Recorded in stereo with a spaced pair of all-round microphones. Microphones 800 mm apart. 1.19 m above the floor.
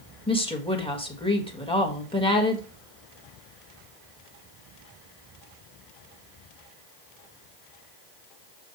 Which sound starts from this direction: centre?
A woman speaking, at 0.3 s.